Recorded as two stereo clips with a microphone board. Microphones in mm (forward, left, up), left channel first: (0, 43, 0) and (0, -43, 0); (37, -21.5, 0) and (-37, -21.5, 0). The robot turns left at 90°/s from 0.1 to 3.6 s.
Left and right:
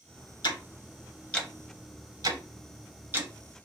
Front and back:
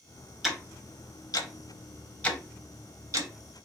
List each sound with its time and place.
0.4 s ticking: 95° left, 0.7 m; by 3.3 s 165° right, 0.7 m